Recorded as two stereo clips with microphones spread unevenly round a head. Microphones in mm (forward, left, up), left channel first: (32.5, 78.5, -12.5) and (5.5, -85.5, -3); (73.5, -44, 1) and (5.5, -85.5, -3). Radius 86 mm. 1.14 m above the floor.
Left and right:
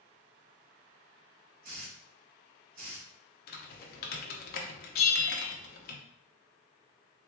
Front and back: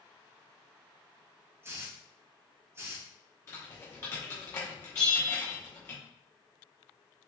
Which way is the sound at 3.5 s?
100° left.